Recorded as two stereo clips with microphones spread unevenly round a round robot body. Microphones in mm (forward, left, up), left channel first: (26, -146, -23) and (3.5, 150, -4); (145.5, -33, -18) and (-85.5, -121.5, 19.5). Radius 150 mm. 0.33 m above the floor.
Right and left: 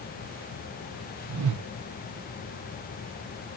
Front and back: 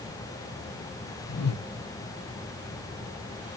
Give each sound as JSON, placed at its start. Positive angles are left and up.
{"t": 1.3, "sound": "a whoosh", "azimuth_deg": 65, "distance_m": 0.7}